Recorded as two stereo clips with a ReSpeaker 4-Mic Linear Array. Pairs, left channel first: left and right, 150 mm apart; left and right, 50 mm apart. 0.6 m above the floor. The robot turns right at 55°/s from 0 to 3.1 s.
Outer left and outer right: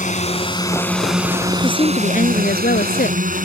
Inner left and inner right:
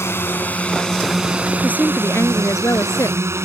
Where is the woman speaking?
30° left; by 3.3 s 110° left.